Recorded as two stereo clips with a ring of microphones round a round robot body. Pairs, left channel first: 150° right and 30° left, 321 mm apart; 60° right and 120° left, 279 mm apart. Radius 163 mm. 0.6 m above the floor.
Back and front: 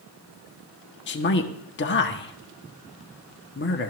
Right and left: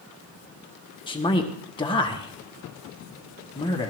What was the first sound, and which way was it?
A man speaking, 125° right.